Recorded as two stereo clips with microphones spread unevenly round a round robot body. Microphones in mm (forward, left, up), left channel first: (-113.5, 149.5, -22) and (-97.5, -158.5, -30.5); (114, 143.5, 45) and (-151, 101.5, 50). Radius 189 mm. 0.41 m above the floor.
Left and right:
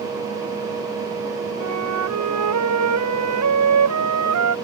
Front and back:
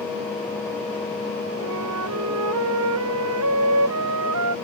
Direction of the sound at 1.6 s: 120° right.